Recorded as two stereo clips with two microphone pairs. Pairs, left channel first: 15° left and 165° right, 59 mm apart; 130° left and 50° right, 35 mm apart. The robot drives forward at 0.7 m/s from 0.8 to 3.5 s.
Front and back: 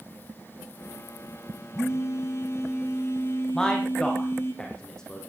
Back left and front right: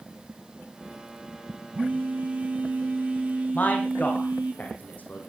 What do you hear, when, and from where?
1.7 s a phone buzzing: 15° right, 5.5 m; by 4.5 s 20° right, 4.5 m
3.5 s a man speaking: 95° left, 5 m